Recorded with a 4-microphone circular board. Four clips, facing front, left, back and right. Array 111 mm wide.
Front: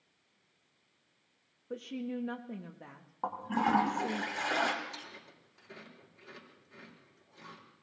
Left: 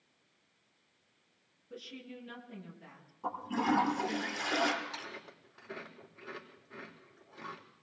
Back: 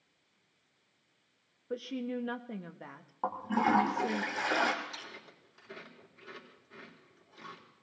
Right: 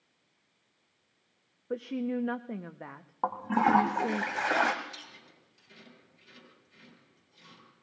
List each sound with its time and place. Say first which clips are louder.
1.7 s a woman speaking: right 15 dB, back 2 dB; 105° right, 0.9 m
3.2 s a toilet flushing: right 6 dB, back 2 dB; 95° right, 1.7 m
4.8 s chewing: left 4 dB, even; 100° left, 3 m